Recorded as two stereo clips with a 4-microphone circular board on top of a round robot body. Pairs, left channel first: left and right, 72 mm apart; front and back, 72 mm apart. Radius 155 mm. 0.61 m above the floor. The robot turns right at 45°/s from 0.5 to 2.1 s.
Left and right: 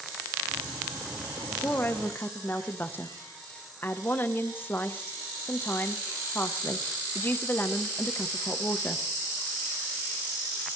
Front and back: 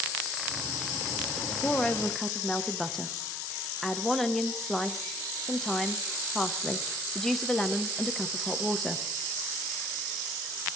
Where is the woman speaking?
55° left, 0.7 m; by 9.1 s 80° left, 0.7 m.